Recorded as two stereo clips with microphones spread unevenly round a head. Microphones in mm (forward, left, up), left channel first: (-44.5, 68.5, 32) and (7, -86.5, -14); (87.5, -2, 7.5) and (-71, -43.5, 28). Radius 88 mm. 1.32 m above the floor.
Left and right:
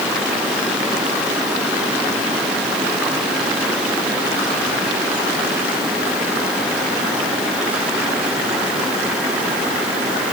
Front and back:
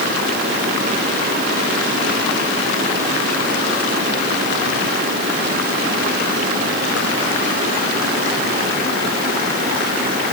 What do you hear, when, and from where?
Only background noise.